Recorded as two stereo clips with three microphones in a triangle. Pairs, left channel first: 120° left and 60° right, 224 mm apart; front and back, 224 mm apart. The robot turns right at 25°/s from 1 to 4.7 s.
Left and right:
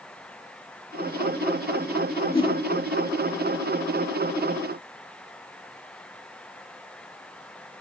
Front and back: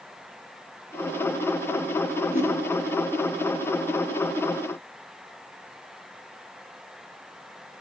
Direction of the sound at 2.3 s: 50° left.